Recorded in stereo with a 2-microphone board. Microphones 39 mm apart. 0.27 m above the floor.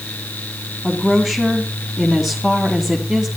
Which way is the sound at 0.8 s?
5° right (ahead or behind).